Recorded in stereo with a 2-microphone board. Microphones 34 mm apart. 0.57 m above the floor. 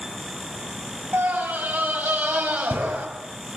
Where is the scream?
65° right (ahead or behind), 4 m.